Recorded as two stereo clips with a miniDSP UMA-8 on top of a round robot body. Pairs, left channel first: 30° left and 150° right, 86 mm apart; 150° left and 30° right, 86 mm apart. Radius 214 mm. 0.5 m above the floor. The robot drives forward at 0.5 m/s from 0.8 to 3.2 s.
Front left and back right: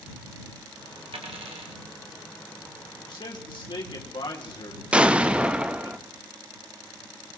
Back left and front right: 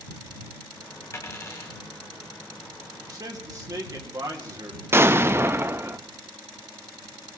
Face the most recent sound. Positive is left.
turn(degrees=-80)